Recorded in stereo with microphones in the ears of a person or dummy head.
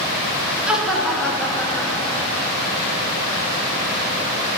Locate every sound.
0.7 s laughter: 10° right (ahead or behind), 1.7 m; by 2.6 s 20° left (ahead or behind), 2.5 m